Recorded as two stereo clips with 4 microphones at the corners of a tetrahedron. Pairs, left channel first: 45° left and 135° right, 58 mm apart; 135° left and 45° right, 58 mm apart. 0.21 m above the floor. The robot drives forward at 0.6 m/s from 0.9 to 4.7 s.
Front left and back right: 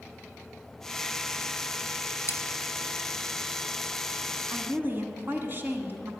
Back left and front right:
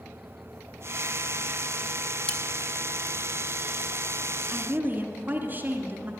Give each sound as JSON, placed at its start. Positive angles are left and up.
{"t": 2.3, "sound": "cutlery clinking", "azimuth_deg": 70, "distance_m": 1.4}
{"t": 4.5, "sound": "a woman speaking", "azimuth_deg": -85, "distance_m": 1.9}